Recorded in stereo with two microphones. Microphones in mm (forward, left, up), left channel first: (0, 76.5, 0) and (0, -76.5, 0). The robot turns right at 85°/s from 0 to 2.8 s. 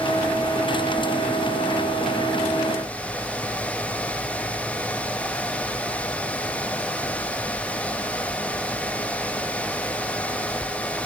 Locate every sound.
Only background noise.